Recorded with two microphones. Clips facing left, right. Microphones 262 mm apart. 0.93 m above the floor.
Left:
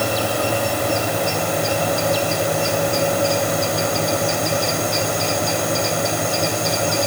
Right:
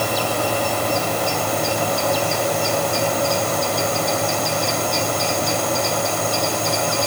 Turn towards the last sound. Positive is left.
No sound to turn to.